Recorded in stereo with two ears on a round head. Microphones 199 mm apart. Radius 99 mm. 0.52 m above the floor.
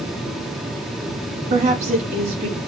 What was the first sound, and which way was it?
A woman speaking, 30° right (ahead or behind).